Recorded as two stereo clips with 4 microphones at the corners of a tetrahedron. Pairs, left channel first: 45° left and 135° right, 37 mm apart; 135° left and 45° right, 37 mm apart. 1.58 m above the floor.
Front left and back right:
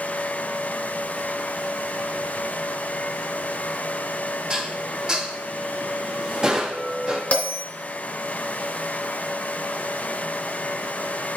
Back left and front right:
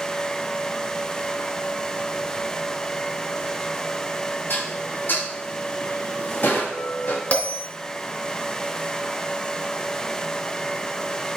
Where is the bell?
90° left, 3 m.